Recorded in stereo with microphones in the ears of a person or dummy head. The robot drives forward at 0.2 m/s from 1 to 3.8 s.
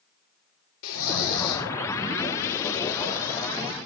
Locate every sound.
0.8 s snoring: 75° left (ahead or behind), 1.5 m; by 1.7 s 80° left, 1.4 m